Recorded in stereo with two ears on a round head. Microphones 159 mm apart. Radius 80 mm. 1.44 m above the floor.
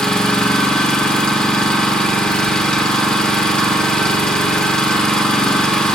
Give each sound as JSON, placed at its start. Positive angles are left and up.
{"t": 0.0, "sound": "an engine running", "side_deg": 5, "distance_m": 1.3}